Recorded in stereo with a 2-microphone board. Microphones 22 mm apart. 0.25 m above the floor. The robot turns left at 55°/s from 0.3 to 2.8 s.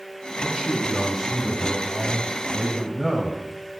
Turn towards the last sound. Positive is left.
turn(degrees=15)  # may be behind; listen again after turning